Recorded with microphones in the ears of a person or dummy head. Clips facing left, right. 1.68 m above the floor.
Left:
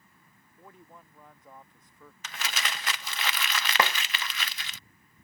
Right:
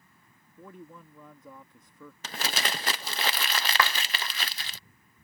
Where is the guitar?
I don't hear a guitar.